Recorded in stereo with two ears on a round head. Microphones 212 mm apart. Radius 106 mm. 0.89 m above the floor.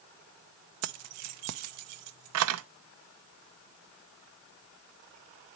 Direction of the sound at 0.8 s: 70° right (ahead or behind).